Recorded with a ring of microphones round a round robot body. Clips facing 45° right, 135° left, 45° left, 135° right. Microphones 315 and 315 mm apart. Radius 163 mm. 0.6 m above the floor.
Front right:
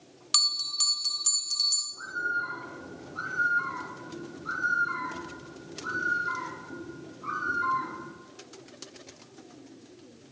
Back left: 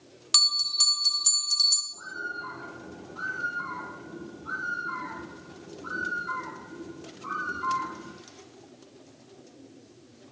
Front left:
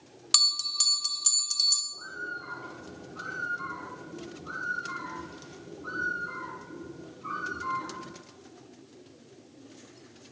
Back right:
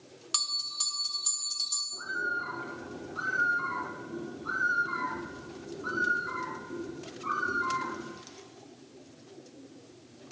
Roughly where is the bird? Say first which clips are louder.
Front right 1 dB, back right 4 dB; right.